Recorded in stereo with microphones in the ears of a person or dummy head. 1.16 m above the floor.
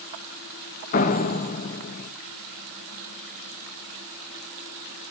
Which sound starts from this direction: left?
A door slam, at 0.9 s.